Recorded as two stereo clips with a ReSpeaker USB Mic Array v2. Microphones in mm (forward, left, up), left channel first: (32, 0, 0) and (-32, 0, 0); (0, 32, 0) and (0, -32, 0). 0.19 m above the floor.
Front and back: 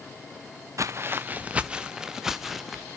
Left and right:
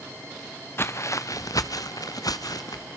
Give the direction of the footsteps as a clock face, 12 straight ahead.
7 o'clock.